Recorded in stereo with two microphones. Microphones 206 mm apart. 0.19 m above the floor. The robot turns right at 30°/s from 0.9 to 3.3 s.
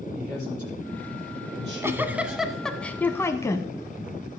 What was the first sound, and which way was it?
A man speaking, 140° right.